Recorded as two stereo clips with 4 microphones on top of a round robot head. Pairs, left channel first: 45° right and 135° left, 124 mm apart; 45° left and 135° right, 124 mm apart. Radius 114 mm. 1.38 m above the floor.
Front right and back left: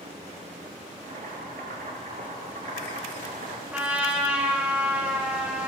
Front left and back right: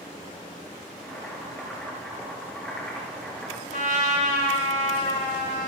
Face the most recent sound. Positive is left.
turn(degrees=60)